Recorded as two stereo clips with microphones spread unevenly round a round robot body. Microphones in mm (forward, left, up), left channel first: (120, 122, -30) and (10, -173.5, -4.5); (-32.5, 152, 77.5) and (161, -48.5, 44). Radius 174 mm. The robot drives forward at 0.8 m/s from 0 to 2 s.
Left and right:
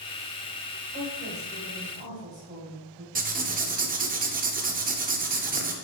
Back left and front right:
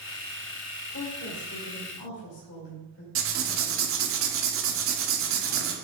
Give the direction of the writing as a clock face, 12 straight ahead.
2 o'clock.